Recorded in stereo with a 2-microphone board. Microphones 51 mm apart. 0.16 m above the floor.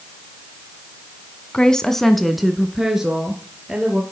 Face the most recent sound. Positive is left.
turn(degrees=-15)  # may be behind; listen again after turning